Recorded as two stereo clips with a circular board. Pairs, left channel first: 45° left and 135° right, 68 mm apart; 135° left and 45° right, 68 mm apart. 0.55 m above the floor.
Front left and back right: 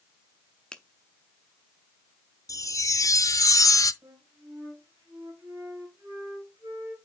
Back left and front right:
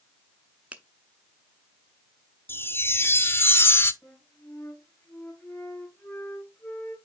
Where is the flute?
170° right, 3 m.